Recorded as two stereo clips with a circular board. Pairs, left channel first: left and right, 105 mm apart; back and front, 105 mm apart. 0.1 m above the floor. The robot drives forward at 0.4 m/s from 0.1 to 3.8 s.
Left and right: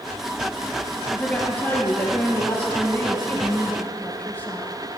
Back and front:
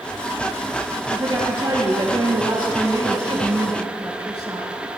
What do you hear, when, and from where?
1.1 s a woman speaking: 15° left, 3 m; by 4.7 s 25° left, 2 m